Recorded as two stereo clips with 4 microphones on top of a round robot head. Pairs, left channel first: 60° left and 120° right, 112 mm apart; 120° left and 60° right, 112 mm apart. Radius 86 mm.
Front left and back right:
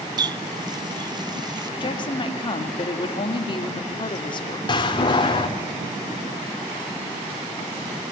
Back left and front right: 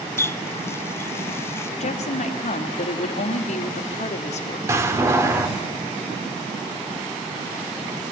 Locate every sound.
0.2 s a running tap: 170° right, 0.6 m
1.8 s a woman speaking: 105° left, 1.9 m
4.7 s a door slam: 10° left, 1.8 m